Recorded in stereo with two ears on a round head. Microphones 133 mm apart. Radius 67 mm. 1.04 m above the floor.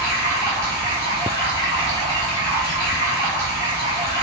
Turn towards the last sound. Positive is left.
turn(degrees=75)  # may be behind; listen again after turning